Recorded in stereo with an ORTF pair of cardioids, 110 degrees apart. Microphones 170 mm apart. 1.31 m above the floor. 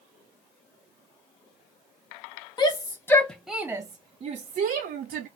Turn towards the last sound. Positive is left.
turn(degrees=-70)